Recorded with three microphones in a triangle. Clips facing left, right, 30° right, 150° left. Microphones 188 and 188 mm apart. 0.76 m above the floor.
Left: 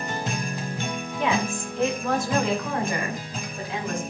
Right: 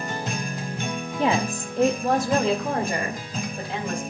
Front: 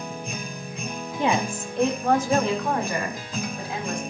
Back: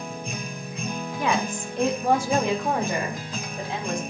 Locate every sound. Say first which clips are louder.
1.2 s a woman speaking: right 2 dB, front 2 dB; 75° right, 1.2 m; by 4.0 s 150° right, 4 m